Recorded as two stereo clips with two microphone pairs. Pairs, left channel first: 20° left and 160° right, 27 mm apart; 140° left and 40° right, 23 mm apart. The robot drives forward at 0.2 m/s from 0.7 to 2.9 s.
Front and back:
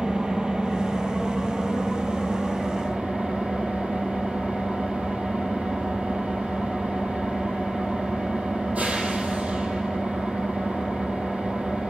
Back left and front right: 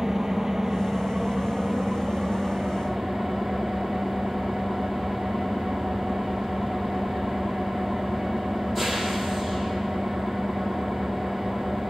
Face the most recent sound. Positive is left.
turn(degrees=-130)